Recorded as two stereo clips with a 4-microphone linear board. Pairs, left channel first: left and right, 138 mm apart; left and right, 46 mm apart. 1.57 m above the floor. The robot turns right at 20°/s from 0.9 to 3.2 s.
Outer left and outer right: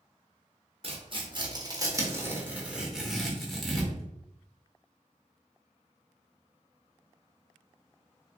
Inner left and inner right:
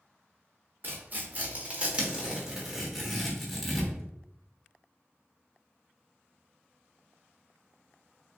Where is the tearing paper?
45° right (ahead or behind), 1.0 m; by 4.1 s centre (ahead or behind), 1.0 m.